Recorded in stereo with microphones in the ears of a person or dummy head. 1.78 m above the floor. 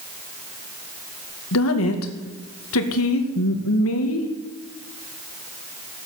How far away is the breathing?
No breathing in this recording.